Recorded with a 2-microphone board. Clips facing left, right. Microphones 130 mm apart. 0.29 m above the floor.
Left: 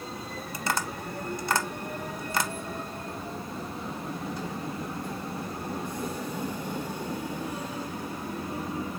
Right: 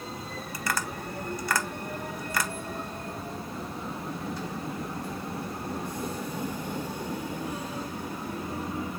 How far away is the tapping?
About 0.6 m.